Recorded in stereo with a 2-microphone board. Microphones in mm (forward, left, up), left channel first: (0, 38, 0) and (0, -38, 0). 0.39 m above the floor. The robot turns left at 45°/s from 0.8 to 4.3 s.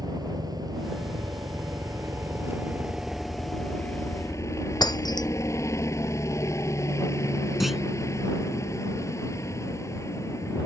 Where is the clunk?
Centre (ahead or behind).